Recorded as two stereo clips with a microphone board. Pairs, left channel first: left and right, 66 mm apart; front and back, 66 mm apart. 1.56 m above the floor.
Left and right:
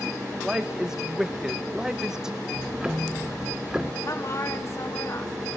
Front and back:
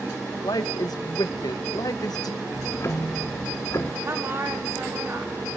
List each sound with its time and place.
0.4 s a woman speaking: 10° right, 1.5 m
2.5 s ticking: 15° right, 1.4 m
4.0 s a woman speaking: 130° left, 3 m